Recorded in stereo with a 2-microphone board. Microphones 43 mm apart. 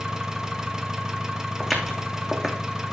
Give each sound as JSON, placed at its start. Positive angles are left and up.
{"t": 0.0, "sound": "an engine running", "side_deg": -15, "distance_m": 1.2}
{"t": 1.6, "sound": "footsteps", "side_deg": 0, "distance_m": 2.5}